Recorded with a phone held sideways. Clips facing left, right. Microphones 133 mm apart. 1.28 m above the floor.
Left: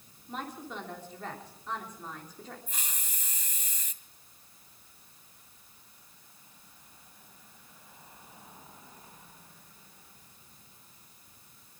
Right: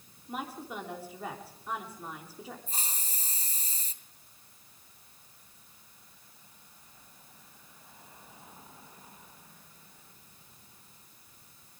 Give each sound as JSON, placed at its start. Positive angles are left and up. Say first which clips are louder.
{"t": 0.3, "sound": "a woman speaking", "louder": "right 1 dB", "side_deg": -10, "distance_m": 3.0}
{"t": 2.7, "sound": "a hiss", "louder": "right 2 dB", "side_deg": -35, "distance_m": 2.0}